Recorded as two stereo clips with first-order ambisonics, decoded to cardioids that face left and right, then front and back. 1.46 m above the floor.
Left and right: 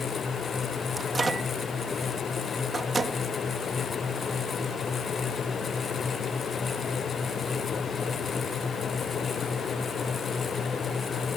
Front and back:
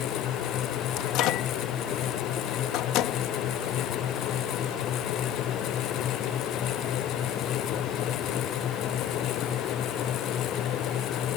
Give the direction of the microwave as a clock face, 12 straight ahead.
1 o'clock.